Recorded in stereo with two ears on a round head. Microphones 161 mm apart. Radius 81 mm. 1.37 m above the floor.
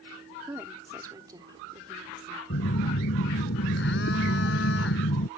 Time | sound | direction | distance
0.5 | a woman speaking | 15° right (ahead or behind) | ?
2.5 | a phone buzzing | 70° left (ahead or behind) | ?